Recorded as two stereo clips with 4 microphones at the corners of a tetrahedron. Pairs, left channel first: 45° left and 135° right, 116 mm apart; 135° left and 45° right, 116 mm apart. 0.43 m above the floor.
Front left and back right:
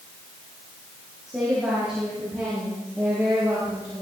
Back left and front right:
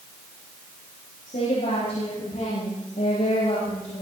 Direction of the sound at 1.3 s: 140° left.